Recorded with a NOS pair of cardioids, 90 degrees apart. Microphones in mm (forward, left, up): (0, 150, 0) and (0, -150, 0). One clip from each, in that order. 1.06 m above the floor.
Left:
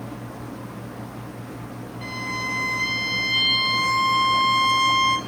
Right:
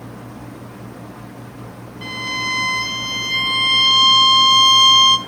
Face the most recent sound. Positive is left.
turn(degrees=-40)